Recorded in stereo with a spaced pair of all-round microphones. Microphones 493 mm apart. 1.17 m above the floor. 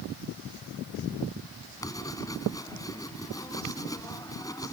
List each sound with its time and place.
1.8 s writing: 5° left (ahead or behind)